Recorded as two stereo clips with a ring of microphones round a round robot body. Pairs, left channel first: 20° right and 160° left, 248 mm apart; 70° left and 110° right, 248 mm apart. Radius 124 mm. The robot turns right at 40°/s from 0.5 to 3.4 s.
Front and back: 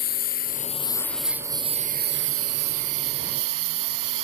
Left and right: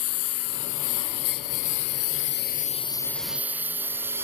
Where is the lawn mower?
30° left; by 4.2 s 165° left.